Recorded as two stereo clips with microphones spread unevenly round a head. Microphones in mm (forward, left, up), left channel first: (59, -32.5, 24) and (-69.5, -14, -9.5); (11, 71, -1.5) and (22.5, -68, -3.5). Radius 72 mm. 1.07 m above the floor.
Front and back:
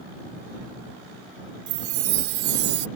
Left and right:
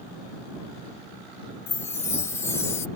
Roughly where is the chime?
Behind.